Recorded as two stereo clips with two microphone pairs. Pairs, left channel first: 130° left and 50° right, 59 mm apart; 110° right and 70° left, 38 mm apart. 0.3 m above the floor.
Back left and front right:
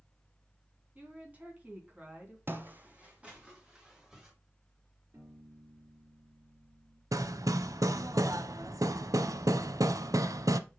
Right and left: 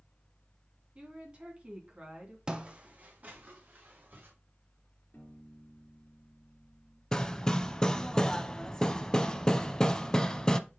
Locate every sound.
0.9 s a woman speaking: 10° left, 2.5 m
2.5 s footsteps: straight ahead, 0.8 m; by 4.3 s 30° left, 3 m
5.1 s a piano: 80° right, 3 m
7.1 s hammering: 40° right, 0.6 m